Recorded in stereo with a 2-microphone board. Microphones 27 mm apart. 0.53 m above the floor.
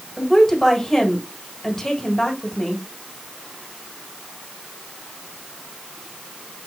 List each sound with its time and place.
0.2 s a woman speaking: 15° left (ahead or behind), 1.8 m